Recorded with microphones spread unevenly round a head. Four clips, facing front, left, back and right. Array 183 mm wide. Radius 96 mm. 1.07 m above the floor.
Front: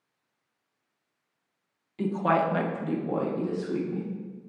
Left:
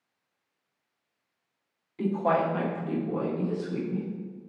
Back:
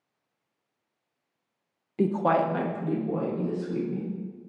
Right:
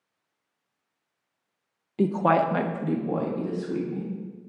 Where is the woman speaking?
130° right, 0.7 m; by 4.1 s 40° right, 3 m.